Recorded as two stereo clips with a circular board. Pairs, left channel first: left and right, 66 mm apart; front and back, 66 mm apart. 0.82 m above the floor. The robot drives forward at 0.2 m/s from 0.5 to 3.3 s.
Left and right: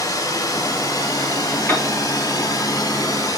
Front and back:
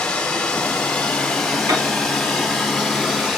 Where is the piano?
145° left, 4 m.